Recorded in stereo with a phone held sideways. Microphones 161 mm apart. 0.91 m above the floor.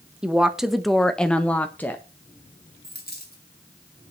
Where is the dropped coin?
65° left (ahead or behind), 3 m.